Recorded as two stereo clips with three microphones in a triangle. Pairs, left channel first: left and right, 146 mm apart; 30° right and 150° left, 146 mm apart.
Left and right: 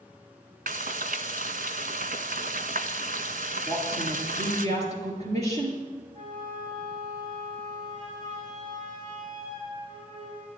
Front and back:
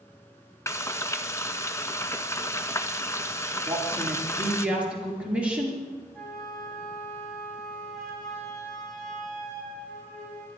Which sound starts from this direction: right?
Frying, at 0.7 s.